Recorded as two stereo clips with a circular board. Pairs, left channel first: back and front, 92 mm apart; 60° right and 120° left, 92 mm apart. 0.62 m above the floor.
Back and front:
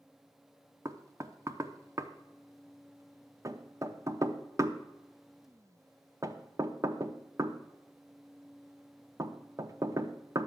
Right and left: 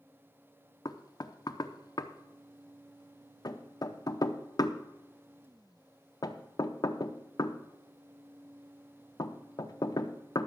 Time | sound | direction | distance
0.8 | knocking | 40° right | 0.6 m